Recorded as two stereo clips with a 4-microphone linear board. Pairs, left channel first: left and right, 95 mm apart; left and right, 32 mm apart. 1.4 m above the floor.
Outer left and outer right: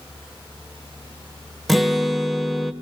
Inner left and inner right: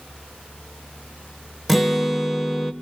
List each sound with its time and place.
1.7 s a guitar: centre (ahead or behind), 1.2 m